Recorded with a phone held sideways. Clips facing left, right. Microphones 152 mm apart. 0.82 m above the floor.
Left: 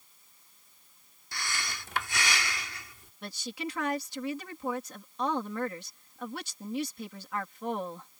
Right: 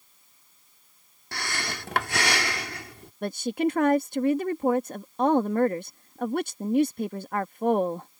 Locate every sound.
1.3 s breathing: 65° right (ahead or behind)
3.2 s a woman speaking: 55° right (ahead or behind)